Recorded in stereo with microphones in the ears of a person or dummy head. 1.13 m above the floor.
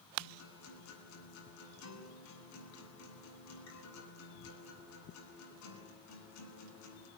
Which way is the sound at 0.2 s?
85° left.